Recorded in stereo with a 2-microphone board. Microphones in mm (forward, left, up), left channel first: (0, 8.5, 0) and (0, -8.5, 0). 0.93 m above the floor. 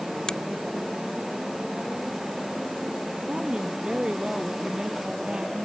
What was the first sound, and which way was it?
A finger snap, 50° left (ahead or behind).